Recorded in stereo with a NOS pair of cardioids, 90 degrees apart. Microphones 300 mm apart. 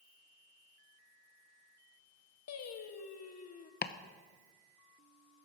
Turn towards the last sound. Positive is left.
turn(degrees=35)